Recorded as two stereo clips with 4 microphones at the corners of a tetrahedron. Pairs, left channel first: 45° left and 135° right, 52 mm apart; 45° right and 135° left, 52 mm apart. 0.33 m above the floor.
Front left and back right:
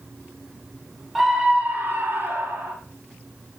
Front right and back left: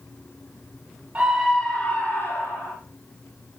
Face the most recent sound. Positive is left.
turn(degrees=-90)